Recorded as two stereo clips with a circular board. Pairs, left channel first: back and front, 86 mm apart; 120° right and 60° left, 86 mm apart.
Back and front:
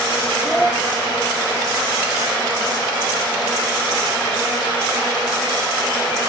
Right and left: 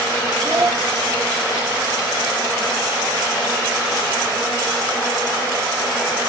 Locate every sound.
0.4 s a child speaking: 105° left, 0.9 m